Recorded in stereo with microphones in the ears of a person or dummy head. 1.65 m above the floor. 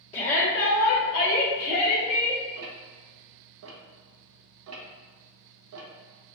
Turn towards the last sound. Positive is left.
turn(degrees=-80)